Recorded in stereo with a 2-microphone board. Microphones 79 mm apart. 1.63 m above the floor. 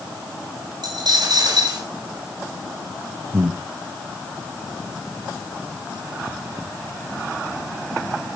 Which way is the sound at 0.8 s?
60° right (ahead or behind).